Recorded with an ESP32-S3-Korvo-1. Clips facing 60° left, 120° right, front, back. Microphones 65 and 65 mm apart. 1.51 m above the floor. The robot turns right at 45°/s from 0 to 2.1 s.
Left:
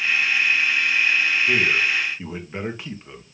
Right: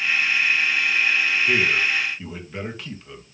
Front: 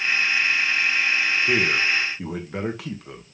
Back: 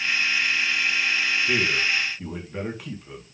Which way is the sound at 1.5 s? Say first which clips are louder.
Even, front 3 dB; 35° right.